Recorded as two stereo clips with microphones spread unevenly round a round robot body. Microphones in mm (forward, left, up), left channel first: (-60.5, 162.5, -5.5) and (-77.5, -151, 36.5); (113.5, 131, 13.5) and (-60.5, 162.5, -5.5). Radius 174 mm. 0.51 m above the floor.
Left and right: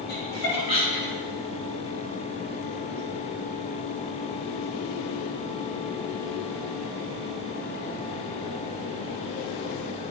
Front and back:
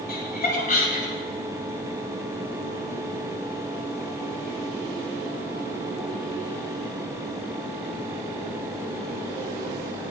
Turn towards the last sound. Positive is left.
turn(degrees=35)